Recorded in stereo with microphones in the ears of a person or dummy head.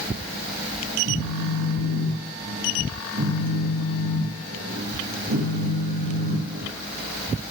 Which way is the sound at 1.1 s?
60° right (ahead or behind).